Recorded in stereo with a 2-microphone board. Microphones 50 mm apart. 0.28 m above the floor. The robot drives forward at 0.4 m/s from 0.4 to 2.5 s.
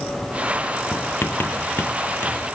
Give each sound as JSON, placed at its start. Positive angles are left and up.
{"t": 0.9, "sound": "writing", "side_deg": 50}